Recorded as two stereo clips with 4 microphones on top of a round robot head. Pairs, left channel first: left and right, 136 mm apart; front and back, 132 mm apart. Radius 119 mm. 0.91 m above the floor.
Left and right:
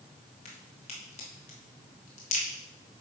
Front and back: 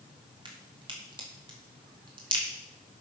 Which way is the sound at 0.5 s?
130° left.